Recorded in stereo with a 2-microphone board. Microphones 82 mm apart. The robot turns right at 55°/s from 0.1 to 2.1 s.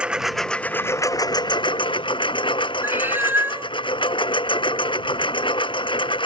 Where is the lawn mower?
15° right; by 6.3 s 95° left.